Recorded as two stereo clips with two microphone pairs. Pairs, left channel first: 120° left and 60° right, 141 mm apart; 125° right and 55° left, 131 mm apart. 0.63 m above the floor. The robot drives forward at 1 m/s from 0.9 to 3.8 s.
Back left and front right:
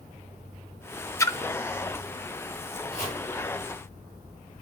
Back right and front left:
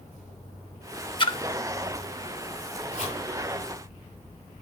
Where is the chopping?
110° right, 9 m.